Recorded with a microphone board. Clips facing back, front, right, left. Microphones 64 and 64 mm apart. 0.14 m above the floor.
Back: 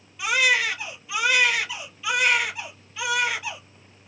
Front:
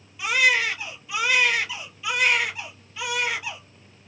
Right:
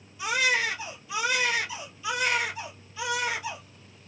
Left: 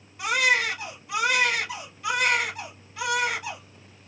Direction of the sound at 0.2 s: 90° left.